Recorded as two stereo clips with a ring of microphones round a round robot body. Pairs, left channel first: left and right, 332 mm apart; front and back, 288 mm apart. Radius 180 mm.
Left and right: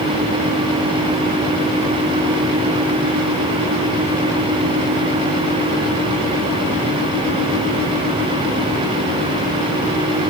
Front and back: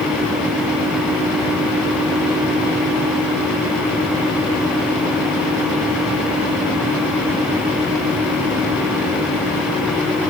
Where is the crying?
No crying in this recording.